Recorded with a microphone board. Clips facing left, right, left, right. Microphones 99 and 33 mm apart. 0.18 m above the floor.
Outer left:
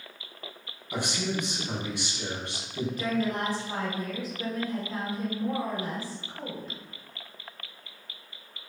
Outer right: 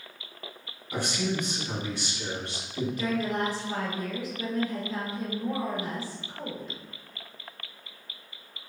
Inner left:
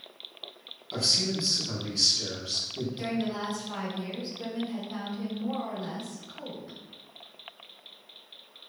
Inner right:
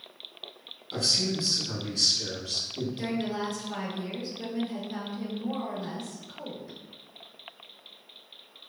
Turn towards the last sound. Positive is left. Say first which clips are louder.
# even, even
turn(degrees=40)  # may be behind; listen again after turning